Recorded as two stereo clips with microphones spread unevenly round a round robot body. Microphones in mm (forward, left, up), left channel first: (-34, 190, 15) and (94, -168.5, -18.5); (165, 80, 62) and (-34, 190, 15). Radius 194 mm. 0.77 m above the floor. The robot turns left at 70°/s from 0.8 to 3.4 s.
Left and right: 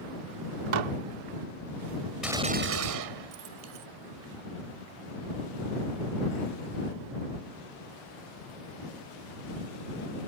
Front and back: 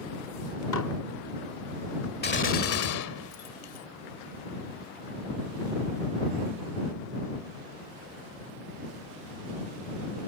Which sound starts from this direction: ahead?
A gunshot, at 2.2 s.